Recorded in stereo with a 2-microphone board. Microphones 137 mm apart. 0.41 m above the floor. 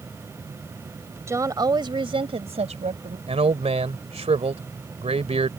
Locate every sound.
1.3 s a woman speaking: 20° right (ahead or behind); by 3.2 s 60° right (ahead or behind)
3.3 s a man speaking: 50° right (ahead or behind)